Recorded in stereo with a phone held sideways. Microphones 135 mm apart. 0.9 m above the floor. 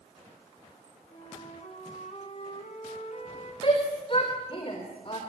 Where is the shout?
45° left (ahead or behind), 4 m.